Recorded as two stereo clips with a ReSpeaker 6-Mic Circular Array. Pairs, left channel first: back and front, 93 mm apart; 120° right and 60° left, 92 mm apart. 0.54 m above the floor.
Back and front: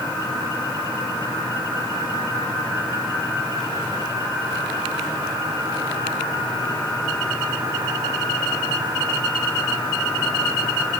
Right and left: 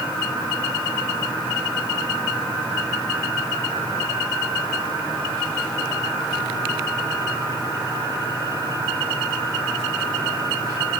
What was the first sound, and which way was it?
Only background noise.